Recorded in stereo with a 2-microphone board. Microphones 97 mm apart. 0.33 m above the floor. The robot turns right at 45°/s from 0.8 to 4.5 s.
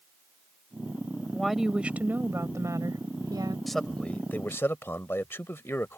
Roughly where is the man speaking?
Ahead.